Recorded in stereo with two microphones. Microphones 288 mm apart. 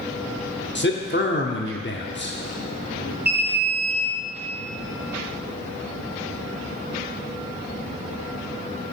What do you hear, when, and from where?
0.8 s a man speaking: 40° left (ahead or behind), 1.0 m
3.2 s an alarm: 35° right (ahead or behind), 1.4 m